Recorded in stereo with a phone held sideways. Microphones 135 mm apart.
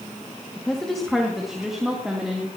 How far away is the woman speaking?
About 1.8 m.